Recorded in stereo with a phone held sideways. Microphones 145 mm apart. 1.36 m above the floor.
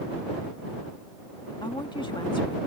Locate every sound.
1.6 s a woman speaking: 35° left (ahead or behind)